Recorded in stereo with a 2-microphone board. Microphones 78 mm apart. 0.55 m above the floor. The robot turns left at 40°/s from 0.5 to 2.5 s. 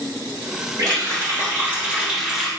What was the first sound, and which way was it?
A running tap, 115° right.